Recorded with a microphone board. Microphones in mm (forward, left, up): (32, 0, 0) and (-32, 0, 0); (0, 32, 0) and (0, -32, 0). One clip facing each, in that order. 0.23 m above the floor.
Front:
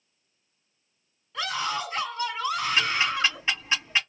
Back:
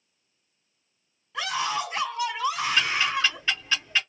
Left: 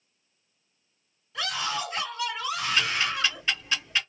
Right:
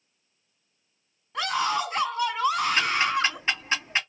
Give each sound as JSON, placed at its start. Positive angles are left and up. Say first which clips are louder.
{"t": 1.3, "sound": "a scream", "louder": "back 2 dB, right 5 dB", "azimuth_deg": -105, "distance_m": 2.5}
{"t": 2.8, "sound": "ticking", "louder": "even, right 3 dB", "azimuth_deg": -65, "distance_m": 2.0}